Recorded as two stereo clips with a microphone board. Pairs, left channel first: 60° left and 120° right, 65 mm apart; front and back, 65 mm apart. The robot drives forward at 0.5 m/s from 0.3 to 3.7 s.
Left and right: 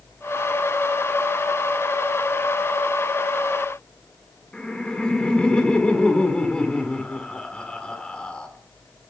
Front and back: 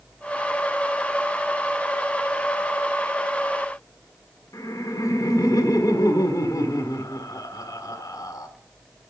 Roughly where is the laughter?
Ahead.